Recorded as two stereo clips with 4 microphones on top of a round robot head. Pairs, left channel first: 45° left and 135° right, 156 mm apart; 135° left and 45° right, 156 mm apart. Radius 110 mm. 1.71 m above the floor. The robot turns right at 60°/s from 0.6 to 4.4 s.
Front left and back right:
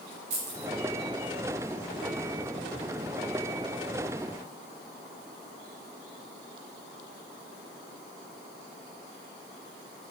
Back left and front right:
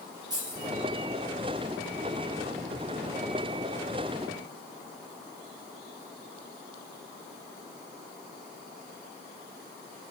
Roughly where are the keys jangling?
Right.